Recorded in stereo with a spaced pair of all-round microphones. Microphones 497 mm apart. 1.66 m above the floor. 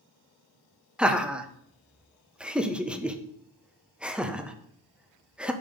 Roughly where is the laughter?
Centre.